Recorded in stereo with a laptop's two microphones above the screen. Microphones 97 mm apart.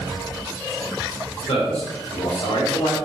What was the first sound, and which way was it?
A man speaking, 85° left.